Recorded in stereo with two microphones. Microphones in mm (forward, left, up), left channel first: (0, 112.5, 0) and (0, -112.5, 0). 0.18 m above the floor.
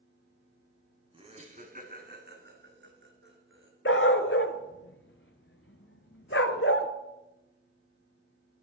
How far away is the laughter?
About 1.1 m.